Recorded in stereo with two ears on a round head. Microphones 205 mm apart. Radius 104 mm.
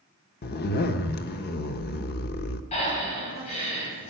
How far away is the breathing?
About 4 m.